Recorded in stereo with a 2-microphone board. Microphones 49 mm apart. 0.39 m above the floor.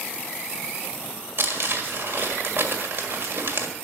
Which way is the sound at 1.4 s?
50° right (ahead or behind).